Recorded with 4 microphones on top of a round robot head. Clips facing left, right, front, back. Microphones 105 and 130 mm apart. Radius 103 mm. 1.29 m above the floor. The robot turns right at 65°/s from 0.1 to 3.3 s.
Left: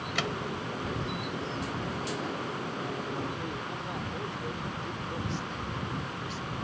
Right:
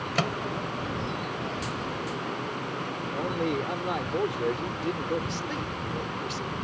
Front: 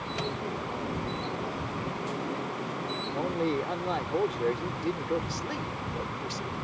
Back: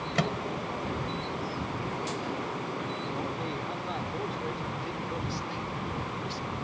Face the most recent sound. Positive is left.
turn(degrees=-50)